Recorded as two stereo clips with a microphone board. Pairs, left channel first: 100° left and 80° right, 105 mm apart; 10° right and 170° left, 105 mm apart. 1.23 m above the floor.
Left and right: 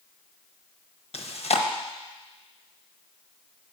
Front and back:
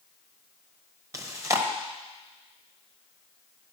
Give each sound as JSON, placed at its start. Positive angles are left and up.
{"t": 1.1, "sound": "chewing", "azimuth_deg": 110, "distance_m": 1.0}